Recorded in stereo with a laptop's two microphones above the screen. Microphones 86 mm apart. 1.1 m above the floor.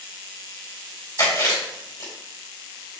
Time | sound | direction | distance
1.2 | chewing | 40° left (ahead or behind) | 3 m